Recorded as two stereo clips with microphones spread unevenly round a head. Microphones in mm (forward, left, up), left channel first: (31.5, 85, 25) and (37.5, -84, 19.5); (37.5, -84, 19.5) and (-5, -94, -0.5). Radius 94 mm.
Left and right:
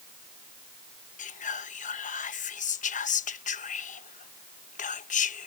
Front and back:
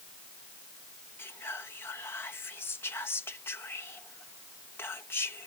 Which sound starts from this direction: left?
Whispering, at 1.2 s.